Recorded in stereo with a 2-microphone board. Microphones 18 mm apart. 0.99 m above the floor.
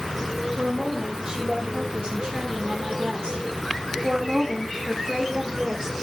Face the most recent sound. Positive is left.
turn(degrees=-30)  # may be behind; listen again after turning